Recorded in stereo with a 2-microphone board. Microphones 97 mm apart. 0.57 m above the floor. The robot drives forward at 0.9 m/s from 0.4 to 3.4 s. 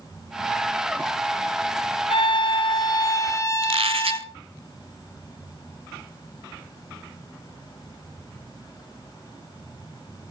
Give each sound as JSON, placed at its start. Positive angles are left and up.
{"t": 2.1, "sound": "a violin", "side_deg": 75, "distance_m": 0.8}
{"t": 3.6, "sound": "a squeak", "side_deg": -85, "distance_m": 1.0}